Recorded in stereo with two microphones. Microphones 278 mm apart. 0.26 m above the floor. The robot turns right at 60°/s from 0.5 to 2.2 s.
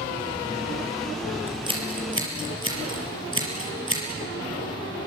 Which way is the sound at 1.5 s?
5° right (ahead or behind).